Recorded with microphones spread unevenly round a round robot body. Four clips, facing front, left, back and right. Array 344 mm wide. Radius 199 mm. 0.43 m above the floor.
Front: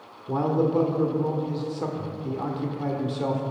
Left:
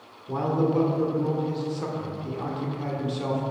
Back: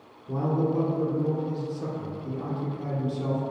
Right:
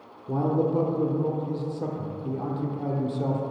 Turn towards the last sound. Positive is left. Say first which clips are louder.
# even, front 3 dB
turn(degrees=-30)